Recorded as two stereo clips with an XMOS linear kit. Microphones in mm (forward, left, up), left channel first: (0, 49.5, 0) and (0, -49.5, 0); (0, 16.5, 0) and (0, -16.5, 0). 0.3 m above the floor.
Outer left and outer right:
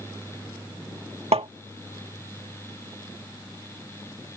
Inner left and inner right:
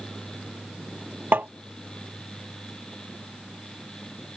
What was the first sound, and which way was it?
Tapping, 70° right (ahead or behind).